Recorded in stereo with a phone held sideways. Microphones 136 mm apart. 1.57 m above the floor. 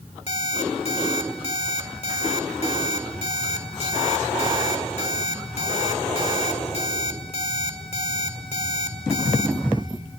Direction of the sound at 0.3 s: 50° left (ahead or behind).